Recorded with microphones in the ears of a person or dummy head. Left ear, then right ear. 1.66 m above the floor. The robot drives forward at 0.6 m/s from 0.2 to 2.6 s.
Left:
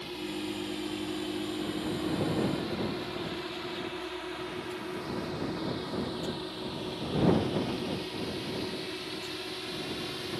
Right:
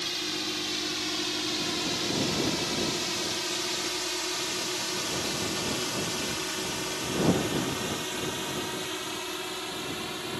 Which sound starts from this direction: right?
A drone, at 0.0 s.